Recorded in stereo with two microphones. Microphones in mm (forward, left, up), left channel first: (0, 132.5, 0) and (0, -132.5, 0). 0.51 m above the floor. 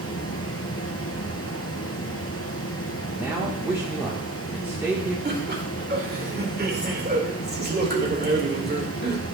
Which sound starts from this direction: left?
Running water, at 0.0 s.